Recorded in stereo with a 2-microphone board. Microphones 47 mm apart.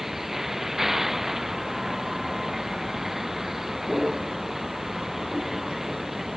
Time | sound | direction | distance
0.0 | a vehicle | 5° right (ahead or behind) | ?